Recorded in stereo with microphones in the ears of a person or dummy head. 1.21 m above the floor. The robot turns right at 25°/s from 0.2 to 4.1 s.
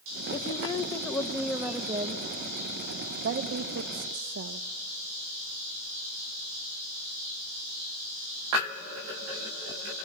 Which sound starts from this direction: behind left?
A woman speaking, at 0.3 s.